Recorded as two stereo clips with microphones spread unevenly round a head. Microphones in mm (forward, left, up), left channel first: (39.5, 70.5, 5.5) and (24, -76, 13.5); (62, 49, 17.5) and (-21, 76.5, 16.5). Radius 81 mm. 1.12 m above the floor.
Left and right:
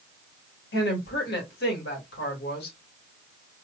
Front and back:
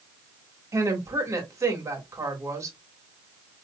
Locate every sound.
0.7 s a woman speaking: 105° left, 2.0 m